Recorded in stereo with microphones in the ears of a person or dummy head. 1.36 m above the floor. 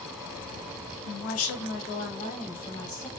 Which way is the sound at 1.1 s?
80° left.